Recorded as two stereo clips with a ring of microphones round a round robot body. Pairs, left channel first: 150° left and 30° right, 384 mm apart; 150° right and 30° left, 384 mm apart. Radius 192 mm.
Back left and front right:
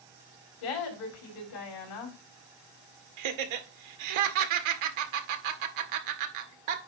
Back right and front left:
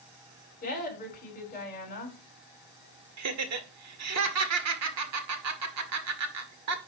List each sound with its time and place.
0.6 s a woman speaking: 145° left, 5 m
3.2 s laughter: 20° right, 1.8 m